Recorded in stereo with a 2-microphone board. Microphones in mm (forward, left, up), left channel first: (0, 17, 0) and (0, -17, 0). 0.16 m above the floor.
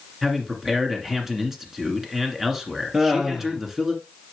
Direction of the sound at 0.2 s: 10° right (ahead or behind).